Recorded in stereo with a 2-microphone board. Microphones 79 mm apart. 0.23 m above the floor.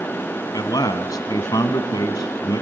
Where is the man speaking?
50° left (ahead or behind), 1.6 m.